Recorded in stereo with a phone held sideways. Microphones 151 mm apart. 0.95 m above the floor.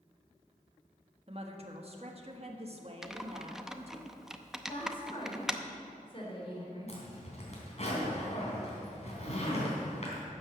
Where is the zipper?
50° left (ahead or behind), 3.5 m.